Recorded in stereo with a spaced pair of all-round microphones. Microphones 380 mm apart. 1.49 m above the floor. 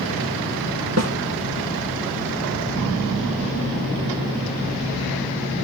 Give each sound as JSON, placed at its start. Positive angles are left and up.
{"t": 1.0, "sound": "a snare drum", "side_deg": -40, "distance_m": 1.2}